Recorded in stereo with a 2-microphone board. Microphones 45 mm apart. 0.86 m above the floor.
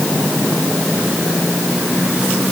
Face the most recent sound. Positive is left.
No sound to turn to.